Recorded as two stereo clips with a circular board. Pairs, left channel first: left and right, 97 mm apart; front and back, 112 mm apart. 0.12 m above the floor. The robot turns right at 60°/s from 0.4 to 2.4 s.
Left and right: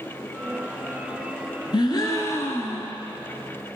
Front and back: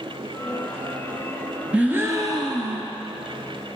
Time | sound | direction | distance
1.7 | a gasp | 105° left | 0.9 m